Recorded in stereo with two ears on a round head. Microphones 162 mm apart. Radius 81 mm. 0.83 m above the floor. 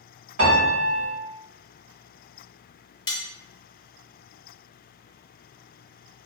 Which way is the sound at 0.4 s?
80° right.